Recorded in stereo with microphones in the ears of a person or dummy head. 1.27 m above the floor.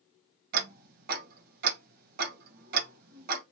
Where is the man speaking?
I don't hear a man speaking.